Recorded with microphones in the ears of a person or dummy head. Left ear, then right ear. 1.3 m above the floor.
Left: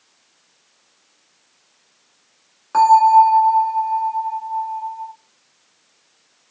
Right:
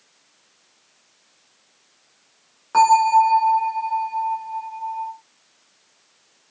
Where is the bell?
5° left (ahead or behind), 1.0 m.